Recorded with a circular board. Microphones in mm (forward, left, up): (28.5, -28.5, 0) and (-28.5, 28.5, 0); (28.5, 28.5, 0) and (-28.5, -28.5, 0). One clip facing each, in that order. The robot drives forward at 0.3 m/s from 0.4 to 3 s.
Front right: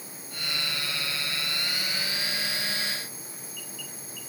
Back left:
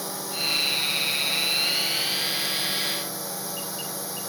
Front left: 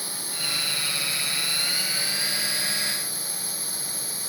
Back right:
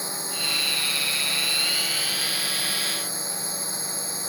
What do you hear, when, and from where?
0.0 s a drone: 155° left